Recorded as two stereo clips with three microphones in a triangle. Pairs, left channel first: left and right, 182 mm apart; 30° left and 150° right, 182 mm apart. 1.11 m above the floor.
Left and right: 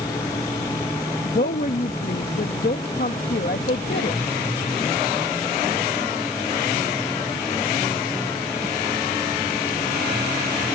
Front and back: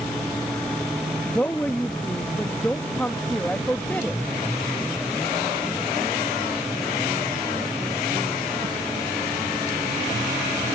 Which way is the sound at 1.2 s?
110° left.